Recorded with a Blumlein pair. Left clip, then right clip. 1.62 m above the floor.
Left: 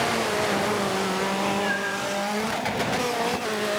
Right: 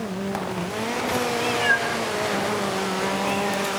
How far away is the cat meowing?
About 4.5 m.